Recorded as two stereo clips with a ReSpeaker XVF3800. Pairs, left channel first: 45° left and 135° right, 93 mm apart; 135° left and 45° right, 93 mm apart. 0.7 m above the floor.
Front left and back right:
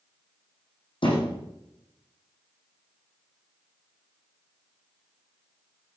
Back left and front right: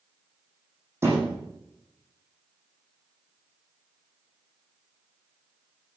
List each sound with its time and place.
1.0 s a thud: 20° left, 7.5 m